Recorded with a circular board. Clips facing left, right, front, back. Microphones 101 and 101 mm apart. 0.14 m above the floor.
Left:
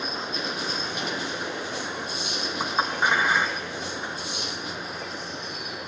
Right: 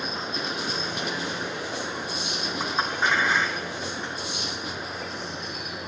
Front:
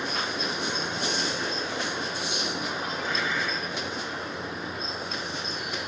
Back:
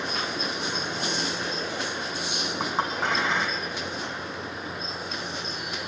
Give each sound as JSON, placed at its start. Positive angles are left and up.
{"t": 2.6, "sound": "a clink", "azimuth_deg": 165, "distance_m": 3.5}